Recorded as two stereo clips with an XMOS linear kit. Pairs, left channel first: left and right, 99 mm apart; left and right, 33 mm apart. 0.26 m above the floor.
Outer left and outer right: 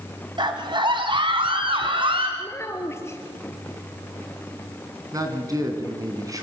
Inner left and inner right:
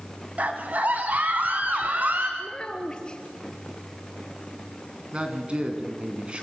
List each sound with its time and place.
0.4 s a scream: 50° right (ahead or behind), 2.5 m; by 2.3 s 60° right (ahead or behind), 3.5 m
2.4 s a child speaking: 25° left (ahead or behind), 2.5 m
5.1 s a man speaking: 35° right (ahead or behind), 3.5 m